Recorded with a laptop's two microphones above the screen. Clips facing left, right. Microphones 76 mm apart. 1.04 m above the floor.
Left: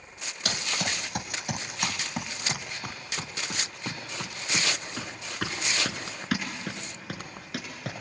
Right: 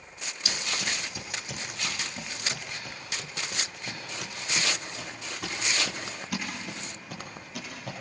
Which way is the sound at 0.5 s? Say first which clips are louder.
Left 2 dB; 60° left (ahead or behind).